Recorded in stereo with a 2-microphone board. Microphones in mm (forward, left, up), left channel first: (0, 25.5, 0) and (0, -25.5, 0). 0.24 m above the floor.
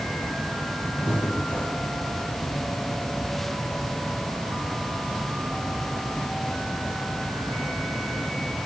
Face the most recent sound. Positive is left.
turn(degrees=30)  # may be behind; listen again after turning